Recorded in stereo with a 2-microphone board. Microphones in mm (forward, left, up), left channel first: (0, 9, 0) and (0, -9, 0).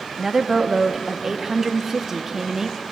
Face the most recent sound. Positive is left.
turn(degrees=-25)  # may be behind; listen again after turning